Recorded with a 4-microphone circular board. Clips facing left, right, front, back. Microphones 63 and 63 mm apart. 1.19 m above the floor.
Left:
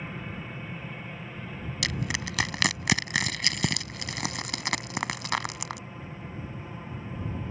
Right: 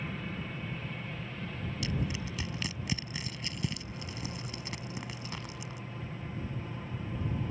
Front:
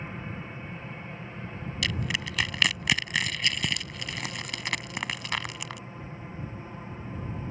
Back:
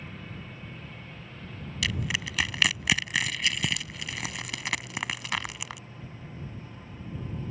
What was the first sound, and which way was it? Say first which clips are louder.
An aircraft: left 1 dB, front 4 dB; 25° left.